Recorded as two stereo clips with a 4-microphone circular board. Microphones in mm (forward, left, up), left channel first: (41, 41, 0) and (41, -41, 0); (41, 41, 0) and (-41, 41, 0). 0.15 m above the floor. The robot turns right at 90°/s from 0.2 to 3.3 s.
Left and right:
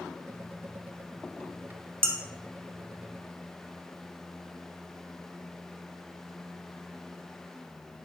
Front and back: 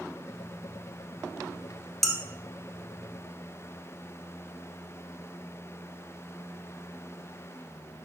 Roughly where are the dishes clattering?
Left.